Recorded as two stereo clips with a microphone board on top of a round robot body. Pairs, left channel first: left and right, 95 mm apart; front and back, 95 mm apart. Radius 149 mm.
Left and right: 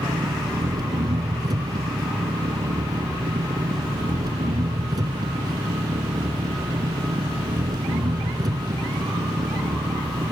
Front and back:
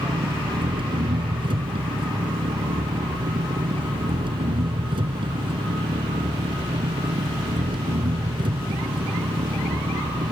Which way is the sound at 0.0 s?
145° right.